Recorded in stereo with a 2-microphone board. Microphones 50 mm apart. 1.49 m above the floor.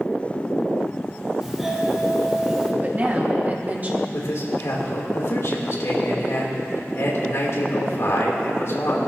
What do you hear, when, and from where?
1.4 s a doorbell: 10° right (ahead or behind), 1.8 m
2.8 s a woman speaking: 35° right (ahead or behind), 1.7 m
4.1 s a man speaking: 65° left (ahead or behind), 3 m